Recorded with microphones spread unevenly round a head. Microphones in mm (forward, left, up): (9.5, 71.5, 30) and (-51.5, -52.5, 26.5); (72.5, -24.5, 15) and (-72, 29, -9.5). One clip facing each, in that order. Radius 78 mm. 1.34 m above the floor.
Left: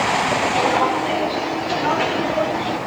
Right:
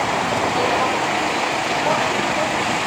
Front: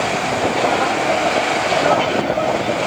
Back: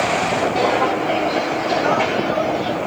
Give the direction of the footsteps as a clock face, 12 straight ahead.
8 o'clock.